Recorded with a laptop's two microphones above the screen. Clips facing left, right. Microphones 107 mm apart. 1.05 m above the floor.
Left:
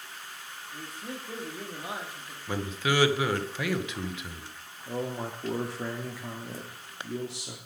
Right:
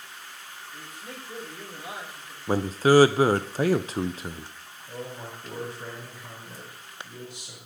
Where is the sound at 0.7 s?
25° left (ahead or behind), 1.6 m.